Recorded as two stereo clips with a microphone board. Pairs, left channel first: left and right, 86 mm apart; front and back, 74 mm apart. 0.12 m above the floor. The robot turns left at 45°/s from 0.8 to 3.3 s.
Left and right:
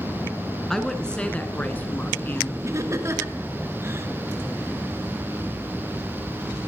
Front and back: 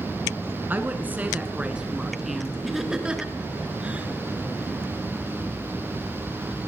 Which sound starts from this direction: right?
Laughter, at 2.6 s.